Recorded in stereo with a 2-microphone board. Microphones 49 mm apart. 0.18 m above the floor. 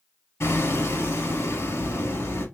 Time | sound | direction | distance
0.4 | hammering | 70° left (ahead or behind) | 3.5 m